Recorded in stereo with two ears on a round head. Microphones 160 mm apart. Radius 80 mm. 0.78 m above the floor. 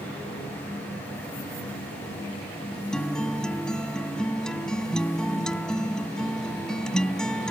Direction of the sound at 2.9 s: 5° left (ahead or behind).